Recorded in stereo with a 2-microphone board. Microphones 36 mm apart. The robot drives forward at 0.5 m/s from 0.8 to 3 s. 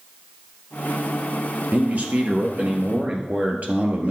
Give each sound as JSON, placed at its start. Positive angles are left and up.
{"t": 1.7, "sound": "a man speaking", "side_deg": -50, "distance_m": 1.7}